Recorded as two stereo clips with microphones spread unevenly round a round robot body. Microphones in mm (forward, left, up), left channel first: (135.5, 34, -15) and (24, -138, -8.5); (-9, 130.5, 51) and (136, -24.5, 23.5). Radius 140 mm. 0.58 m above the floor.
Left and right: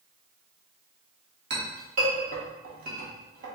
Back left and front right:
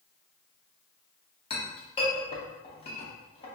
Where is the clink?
160° right, 0.7 m.